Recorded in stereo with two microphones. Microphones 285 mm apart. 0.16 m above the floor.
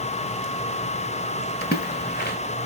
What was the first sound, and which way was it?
A splash, 30° left (ahead or behind).